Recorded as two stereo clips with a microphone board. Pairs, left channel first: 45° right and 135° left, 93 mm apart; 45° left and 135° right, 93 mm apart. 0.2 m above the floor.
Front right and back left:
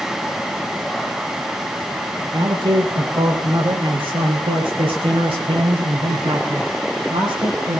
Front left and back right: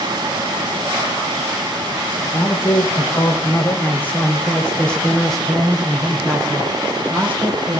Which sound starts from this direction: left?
A man speaking, at 2.2 s.